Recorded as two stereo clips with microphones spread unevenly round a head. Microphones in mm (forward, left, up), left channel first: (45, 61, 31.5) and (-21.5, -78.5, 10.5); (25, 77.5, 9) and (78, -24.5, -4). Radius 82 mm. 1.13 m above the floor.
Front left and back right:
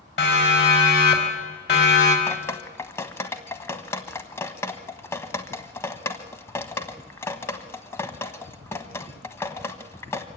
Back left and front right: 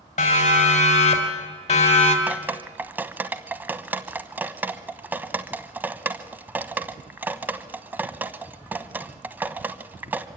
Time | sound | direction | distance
0.2 | a siren | 95° left | 5 m
2.3 | dripping | 10° left | 1.2 m